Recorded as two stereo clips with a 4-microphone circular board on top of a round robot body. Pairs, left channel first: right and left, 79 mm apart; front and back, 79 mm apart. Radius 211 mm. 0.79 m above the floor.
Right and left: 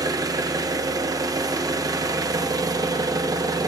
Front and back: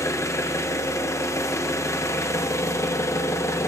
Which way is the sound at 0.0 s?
50° left.